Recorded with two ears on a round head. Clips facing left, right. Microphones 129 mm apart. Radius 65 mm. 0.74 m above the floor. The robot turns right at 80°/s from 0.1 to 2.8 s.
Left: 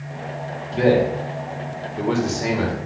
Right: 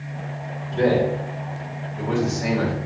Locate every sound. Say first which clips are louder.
0.7 s a man speaking: left 2 dB; 5° left (ahead or behind), 1.2 m